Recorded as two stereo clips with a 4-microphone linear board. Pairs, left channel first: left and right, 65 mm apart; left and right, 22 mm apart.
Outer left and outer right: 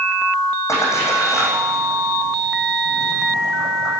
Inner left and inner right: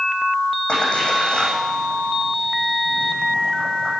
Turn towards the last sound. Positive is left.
turn(degrees=50)  # may be behind; listen again after turning